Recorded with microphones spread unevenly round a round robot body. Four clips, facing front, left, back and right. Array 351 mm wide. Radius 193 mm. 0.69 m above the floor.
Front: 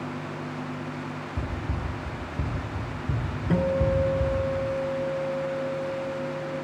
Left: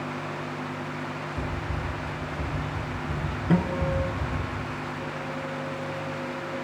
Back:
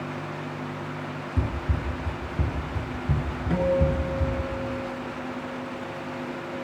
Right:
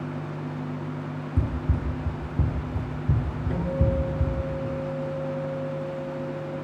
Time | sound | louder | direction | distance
1.4 | running footsteps | right 2 dB, back 2 dB | 100° right | 3 m
3.5 | a guitar | left 2 dB, even | 75° left | 4 m